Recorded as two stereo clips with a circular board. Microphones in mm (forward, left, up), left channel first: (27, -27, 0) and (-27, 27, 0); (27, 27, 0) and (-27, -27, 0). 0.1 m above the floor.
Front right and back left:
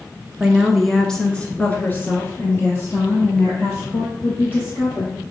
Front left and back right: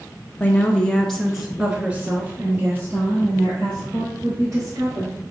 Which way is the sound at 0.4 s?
70° left.